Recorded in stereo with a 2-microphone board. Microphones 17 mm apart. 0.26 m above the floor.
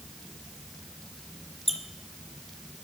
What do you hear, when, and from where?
1.7 s a squeak: 5° left (ahead or behind), 0.6 m